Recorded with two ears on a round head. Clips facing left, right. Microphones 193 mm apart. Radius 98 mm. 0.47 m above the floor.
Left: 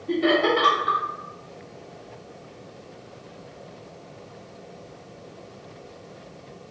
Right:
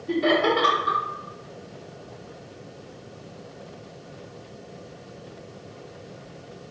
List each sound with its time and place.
0.1 s laughter: 5° left (ahead or behind), 1.1 m